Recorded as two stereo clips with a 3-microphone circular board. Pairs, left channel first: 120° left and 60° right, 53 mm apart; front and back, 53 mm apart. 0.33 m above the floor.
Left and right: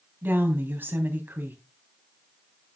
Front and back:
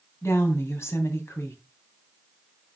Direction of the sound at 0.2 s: 15° right.